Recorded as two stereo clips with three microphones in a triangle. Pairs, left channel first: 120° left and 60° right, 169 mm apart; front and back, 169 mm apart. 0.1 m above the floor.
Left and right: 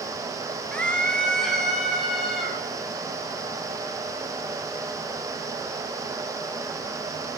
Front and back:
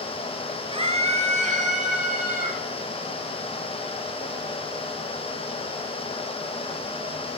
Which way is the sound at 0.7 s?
165° right.